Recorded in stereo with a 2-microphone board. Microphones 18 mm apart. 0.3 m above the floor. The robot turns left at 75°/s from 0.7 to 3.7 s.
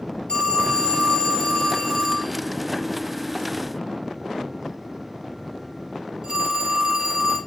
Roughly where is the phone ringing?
Left.